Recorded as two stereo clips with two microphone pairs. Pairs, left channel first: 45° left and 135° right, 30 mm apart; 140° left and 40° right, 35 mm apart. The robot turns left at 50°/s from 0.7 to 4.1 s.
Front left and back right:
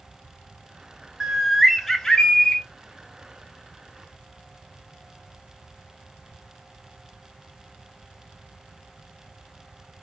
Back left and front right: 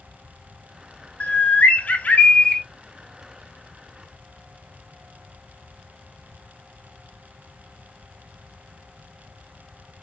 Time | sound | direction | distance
1.2 | a bird | 160° left | 0.6 m